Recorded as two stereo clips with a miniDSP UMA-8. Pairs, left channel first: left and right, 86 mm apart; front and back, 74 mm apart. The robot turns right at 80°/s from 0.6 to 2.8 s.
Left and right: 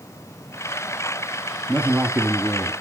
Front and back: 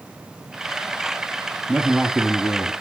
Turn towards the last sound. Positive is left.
turn(degrees=-35)